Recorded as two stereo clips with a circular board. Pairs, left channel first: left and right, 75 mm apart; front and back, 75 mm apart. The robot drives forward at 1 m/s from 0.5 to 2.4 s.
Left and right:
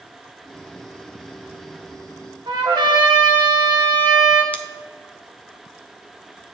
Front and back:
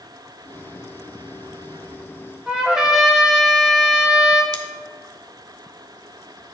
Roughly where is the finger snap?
I don't hear a finger snap.